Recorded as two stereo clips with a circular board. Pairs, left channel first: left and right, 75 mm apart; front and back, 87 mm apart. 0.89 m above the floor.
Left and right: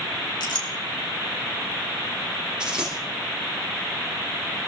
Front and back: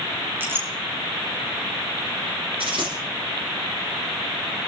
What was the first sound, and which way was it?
A clink, 115° left.